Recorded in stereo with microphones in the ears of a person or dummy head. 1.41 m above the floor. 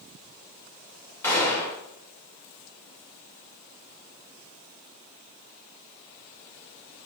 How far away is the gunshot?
About 0.8 m.